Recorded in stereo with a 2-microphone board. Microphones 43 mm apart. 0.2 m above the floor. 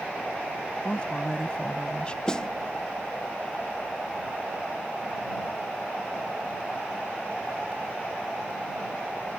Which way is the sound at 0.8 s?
25° left (ahead or behind).